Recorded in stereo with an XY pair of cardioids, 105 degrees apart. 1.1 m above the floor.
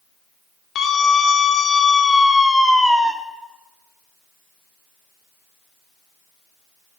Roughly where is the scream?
Ahead left.